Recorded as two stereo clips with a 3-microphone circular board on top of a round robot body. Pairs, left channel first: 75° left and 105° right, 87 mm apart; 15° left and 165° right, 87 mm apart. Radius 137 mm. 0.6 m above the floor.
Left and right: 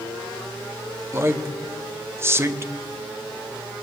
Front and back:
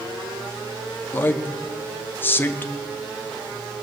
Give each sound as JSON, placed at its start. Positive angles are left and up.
{"t": 1.1, "sound": "a man speaking", "azimuth_deg": -45, "distance_m": 0.9}